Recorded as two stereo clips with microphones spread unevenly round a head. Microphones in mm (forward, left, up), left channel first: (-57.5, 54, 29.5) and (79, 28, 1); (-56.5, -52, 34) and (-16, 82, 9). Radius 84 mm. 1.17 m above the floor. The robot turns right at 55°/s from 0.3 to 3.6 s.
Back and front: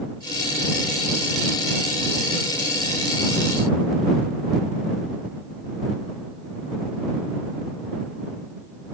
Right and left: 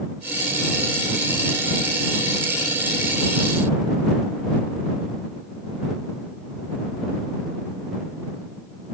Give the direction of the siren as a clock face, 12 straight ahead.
No siren in this recording.